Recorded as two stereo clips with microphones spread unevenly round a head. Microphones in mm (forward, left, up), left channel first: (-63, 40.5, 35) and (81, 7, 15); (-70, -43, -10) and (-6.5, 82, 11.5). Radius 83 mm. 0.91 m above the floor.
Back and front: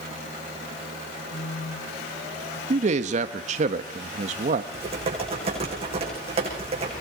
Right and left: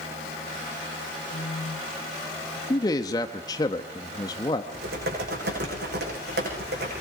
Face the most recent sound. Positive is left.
turn(degrees=40)